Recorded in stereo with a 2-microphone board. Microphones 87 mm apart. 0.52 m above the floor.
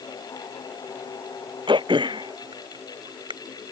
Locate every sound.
1.7 s throat clearing: 75° right (ahead or behind)